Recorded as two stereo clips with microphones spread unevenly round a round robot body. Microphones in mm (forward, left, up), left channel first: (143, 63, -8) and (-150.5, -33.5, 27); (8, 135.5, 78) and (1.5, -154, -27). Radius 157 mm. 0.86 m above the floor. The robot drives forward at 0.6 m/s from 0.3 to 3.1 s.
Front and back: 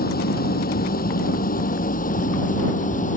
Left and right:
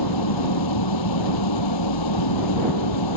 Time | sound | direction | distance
0.0 | an engine running | 80° left | ?